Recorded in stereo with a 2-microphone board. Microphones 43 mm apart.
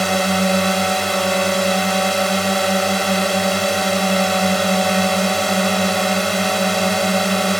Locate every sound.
0.0 s a drone: 5° left (ahead or behind)